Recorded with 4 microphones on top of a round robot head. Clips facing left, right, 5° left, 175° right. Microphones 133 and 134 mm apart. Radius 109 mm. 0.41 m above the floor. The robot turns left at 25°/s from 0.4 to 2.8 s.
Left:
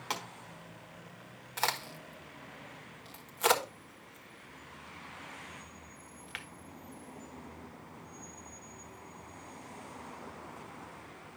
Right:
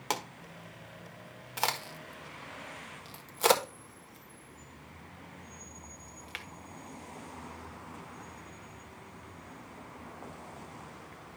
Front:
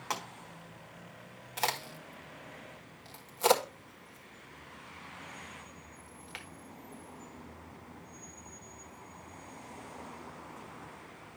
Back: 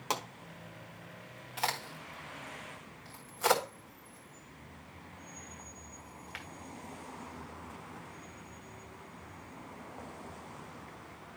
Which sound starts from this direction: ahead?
A crack, at 1.6 s.